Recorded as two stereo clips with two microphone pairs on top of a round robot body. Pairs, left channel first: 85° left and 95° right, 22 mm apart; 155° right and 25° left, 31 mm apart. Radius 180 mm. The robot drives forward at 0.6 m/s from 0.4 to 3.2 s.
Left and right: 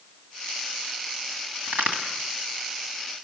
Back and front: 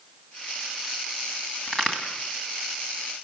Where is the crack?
80° right, 2 m; by 2.0 s 85° right, 2 m.